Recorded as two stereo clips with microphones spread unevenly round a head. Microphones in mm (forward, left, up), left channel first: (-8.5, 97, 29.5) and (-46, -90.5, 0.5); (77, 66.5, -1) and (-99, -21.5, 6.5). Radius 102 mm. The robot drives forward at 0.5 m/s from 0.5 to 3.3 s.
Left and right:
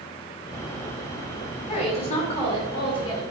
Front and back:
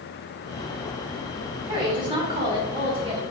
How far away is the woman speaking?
About 3.5 m.